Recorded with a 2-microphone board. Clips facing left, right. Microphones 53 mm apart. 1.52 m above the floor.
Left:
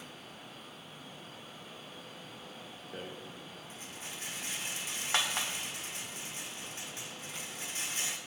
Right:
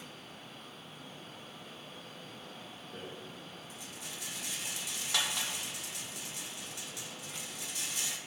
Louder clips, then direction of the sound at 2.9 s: Left 2 dB; 40° left (ahead or behind).